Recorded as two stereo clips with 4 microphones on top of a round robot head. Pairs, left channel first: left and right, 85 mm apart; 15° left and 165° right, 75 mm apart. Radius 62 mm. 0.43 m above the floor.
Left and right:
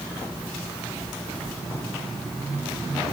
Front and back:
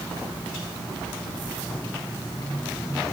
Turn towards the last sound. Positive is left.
No sound to turn to.